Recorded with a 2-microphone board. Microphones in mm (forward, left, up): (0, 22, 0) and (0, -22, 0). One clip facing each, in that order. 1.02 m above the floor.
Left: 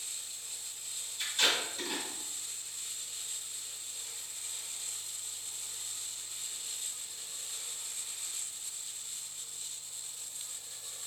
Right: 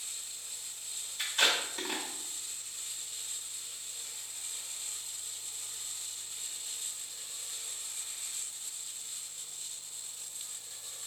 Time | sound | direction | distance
1.2 | tape being pulled | 80° right | 1.4 m